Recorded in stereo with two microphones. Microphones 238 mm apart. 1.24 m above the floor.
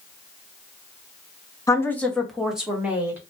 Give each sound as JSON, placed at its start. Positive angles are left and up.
{"t": 1.7, "sound": "a woman speaking", "side_deg": 15, "distance_m": 0.6}